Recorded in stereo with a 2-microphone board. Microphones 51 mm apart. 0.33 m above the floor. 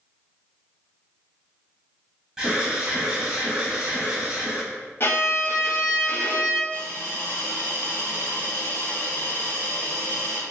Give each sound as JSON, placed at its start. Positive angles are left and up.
{"t": 2.4, "sound": "an alarm", "side_deg": -15, "distance_m": 1.3}
{"t": 5.0, "sound": "a violin", "side_deg": 55, "distance_m": 0.6}
{"t": 6.7, "sound": "a hiss", "side_deg": 50, "distance_m": 1.8}